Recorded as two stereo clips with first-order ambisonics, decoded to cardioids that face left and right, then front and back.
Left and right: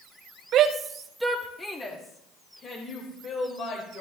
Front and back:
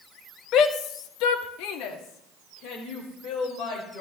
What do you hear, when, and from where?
0.5 s a shout: 45° right, 1.1 m; by 4.0 s 35° left, 4.5 m